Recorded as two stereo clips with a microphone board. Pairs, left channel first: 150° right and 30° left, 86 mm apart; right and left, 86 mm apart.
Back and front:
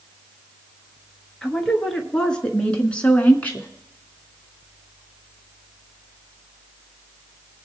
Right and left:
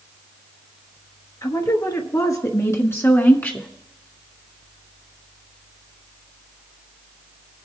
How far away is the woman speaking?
About 1.8 m.